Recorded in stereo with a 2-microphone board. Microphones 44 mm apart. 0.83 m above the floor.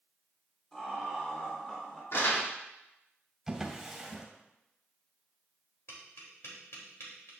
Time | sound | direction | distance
0.7 | laughter | 25° left (ahead or behind) | 3 m
2.1 | crumpling | 70° left (ahead or behind) | 2.5 m
3.5 | a drawer | 5° right (ahead or behind) | 2.5 m
5.9 | tapping | 75° left (ahead or behind) | 3 m